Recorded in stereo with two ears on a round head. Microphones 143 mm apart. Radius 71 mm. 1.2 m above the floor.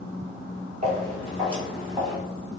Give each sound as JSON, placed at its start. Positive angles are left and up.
{"t": 0.8, "sound": "footsteps", "side_deg": -45, "distance_m": 1.7}